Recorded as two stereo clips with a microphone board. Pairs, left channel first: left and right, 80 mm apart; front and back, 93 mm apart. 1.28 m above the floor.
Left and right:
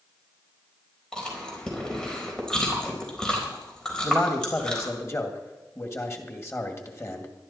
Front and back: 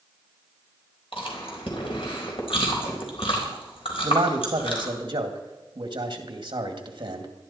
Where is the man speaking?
145° left, 2 m.